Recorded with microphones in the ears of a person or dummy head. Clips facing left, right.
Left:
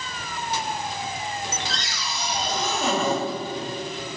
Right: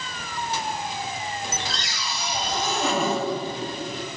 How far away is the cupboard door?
About 2.0 m.